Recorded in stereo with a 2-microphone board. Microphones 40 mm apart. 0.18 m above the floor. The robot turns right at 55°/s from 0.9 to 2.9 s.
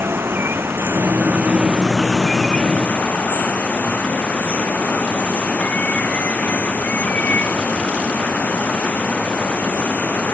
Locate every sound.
0.0 s running water: 70° right; by 10.3 s 40° left